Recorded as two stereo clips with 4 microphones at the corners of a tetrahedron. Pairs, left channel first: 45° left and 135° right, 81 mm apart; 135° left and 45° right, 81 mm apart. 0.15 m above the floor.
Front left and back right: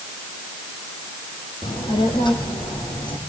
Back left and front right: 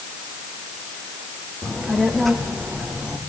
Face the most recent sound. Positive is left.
turn(degrees=40)